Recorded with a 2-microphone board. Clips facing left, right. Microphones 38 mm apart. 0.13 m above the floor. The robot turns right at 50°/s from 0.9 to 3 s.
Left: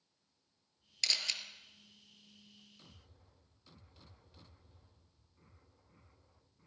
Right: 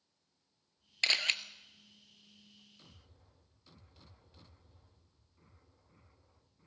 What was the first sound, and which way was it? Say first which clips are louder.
A camera shutter: right 6 dB; 35° right (ahead or behind).